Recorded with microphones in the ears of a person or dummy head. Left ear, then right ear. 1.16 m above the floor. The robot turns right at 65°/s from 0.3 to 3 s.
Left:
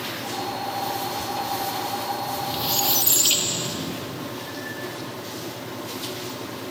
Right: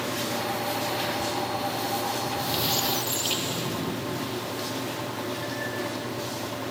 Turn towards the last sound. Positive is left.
turn(degrees=25)